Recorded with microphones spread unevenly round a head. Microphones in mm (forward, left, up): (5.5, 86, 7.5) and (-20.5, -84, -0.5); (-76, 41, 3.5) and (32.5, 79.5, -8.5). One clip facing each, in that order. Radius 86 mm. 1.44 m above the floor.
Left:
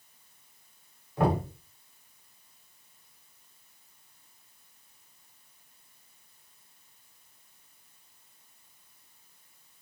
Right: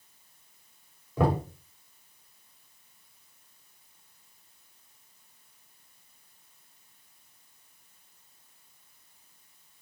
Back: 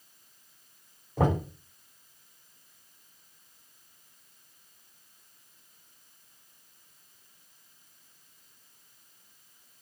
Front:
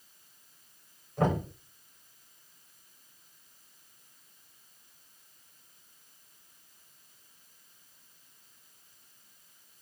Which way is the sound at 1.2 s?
110° right.